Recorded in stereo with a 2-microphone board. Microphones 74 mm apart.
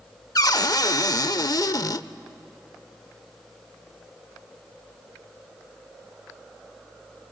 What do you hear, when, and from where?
0.3 s a cupboard door: 55° left (ahead or behind), 0.6 m